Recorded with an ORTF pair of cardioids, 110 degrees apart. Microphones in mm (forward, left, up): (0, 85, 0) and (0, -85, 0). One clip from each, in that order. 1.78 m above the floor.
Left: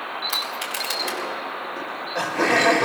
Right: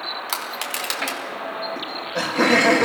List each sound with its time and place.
0.3 s crushing: 60° right, 5 m
1.8 s laughter: 35° right, 3 m